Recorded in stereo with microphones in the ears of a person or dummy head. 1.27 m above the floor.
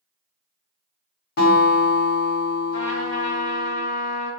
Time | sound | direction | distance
1.4 | a guitar | 60° left (ahead or behind) | 1.2 m
2.7 | a trumpet | 65° left (ahead or behind) | 1.1 m